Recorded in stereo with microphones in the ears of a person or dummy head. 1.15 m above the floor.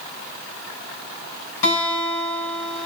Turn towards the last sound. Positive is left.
turn(degrees=85)